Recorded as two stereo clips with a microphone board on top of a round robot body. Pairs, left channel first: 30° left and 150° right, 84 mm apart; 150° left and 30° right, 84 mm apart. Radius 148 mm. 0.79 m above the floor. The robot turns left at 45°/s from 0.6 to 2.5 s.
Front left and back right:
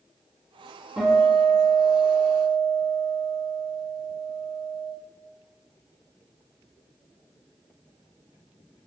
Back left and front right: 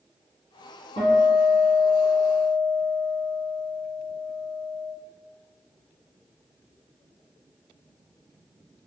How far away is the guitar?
About 1.7 m.